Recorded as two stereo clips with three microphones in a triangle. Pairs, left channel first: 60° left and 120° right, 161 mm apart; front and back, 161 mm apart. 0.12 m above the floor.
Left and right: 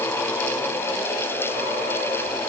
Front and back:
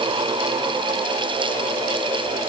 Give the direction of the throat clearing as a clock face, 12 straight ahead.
No throat clearing in this recording.